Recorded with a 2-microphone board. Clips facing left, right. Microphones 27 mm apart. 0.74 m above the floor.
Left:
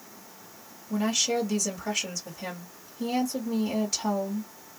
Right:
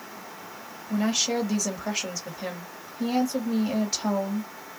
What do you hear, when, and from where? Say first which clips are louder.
0.9 s a woman speaking: right 1 dB; 25° right (ahead or behind), 1.6 m